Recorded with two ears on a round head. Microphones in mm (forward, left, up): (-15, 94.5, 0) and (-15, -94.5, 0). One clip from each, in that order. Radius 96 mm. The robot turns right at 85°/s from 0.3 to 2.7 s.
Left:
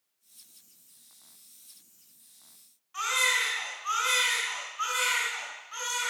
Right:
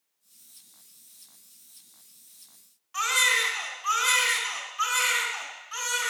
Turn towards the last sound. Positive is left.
turn(degrees=-35)  # may be behind; listen again after turning